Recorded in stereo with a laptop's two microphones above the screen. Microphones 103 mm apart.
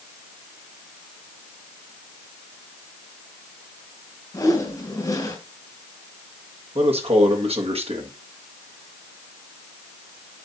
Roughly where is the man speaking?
Right.